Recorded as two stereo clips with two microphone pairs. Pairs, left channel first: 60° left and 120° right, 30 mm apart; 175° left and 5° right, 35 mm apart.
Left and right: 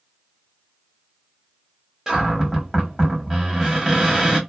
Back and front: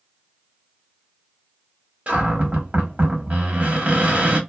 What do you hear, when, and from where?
2.1 s a cupboard door: 40° right, 1.1 m